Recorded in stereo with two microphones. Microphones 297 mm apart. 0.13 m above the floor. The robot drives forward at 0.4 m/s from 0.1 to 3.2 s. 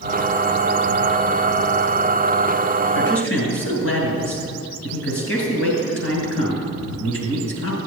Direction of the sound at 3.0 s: 50° left (ahead or behind).